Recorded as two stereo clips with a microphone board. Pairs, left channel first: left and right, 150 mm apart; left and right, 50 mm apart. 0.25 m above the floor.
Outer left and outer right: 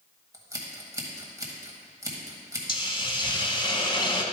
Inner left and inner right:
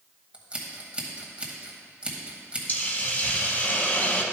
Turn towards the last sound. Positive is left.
turn(degrees=35)  # may be behind; listen again after turning